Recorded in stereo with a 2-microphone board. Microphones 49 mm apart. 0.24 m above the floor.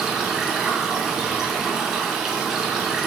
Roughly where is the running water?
Centre.